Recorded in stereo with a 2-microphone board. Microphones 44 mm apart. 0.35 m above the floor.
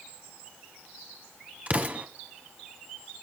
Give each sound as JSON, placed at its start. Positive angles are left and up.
{"t": 1.7, "sound": "an explosion", "side_deg": -30, "distance_m": 1.4}